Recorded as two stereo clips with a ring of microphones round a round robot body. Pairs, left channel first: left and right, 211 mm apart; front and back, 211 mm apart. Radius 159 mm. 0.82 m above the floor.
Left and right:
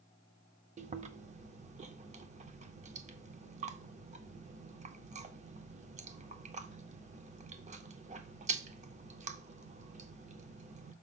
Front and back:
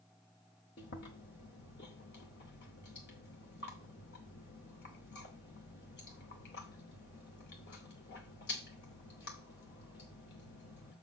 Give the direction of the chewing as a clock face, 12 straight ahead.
1 o'clock.